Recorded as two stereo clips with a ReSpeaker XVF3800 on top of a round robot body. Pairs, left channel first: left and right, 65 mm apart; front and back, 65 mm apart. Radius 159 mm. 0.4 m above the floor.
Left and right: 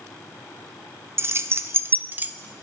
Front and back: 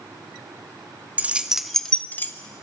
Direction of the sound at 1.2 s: 120° right.